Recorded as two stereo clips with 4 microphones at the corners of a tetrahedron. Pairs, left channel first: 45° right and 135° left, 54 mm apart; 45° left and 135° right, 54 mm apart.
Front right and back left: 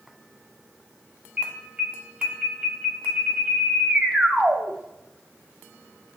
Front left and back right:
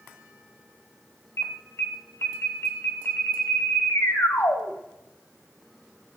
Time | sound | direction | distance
1.4 | an alarm | 70° left | 2.5 m